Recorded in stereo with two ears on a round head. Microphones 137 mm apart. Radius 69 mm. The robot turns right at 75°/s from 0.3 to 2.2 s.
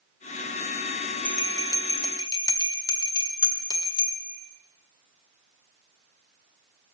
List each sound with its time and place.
1.2 s a bell: 15° left (ahead or behind), 0.8 m; by 4.2 s 25° left (ahead or behind), 0.8 m